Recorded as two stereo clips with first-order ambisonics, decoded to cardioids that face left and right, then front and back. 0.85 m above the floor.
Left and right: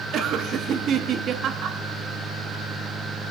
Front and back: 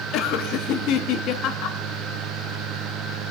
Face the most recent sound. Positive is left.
turn(degrees=-35)